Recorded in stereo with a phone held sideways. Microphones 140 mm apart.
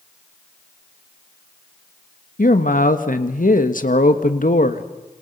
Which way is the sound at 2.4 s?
75° left (ahead or behind).